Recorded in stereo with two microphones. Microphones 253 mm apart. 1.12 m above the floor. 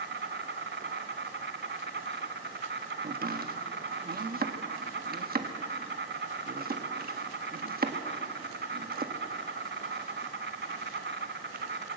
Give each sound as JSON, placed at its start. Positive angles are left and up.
{"t": 0.0, "sound": "an insect", "side_deg": -45, "distance_m": 1.4}
{"t": 3.0, "sound": "chopping", "side_deg": -35, "distance_m": 1.2}